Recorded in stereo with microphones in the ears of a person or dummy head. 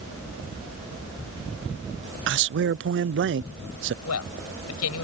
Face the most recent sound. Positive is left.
turn(degrees=85)